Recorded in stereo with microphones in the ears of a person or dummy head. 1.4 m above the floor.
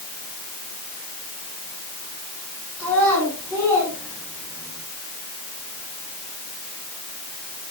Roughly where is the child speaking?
Centre.